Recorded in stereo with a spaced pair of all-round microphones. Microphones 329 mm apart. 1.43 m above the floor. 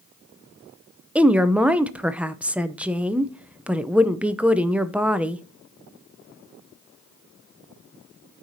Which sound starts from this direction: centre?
A woman speaking, at 1.1 s.